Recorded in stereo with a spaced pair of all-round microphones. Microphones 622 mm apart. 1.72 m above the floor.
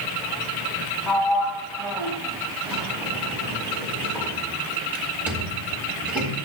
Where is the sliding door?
Centre (ahead or behind), 1.7 m.